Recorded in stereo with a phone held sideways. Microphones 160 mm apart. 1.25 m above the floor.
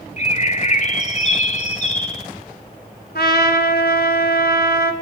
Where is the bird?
45° left (ahead or behind), 1.7 m.